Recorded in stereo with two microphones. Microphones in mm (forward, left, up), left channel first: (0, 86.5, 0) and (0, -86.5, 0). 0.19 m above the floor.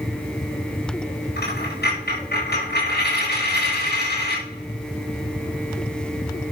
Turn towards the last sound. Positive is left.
turn(degrees=70)  # may be behind; listen again after turning